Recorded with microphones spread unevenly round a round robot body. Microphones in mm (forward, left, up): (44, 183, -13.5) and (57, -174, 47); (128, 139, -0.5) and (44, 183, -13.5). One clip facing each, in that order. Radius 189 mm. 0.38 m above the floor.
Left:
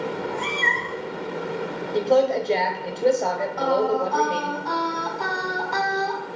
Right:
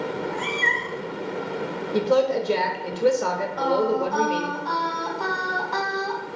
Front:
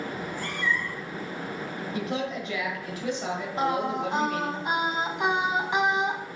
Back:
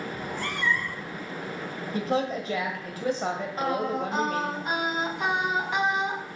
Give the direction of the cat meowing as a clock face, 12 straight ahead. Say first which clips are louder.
Even, back 1 dB; 6 o'clock.